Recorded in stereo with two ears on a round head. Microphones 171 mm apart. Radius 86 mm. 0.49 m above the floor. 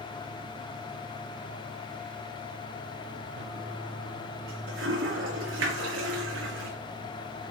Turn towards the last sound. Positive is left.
turn(degrees=-75)  # may be behind; listen again after turning